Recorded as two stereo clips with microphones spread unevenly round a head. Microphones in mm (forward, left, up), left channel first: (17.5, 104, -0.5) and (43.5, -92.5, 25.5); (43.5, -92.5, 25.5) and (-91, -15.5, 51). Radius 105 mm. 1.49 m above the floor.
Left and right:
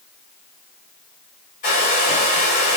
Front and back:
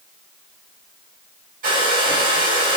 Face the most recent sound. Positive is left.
turn(degrees=155)